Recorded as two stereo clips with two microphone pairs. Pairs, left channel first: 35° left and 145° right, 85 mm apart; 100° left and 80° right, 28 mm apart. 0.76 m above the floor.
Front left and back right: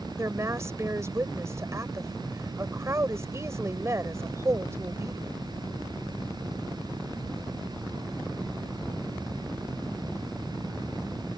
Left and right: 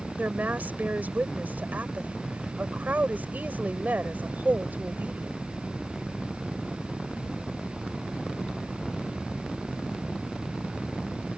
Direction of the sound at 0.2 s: 90° right.